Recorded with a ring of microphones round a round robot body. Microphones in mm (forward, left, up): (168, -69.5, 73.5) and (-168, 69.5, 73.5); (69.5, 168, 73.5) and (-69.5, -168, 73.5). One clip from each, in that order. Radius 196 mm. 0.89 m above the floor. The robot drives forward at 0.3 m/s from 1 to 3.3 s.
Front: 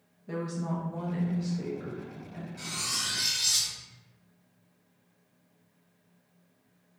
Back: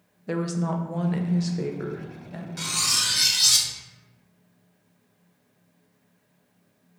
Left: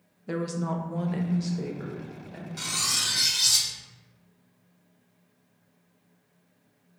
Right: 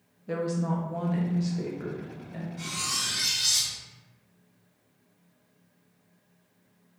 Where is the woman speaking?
125° left, 0.7 m; by 2.5 s 150° left, 1.0 m.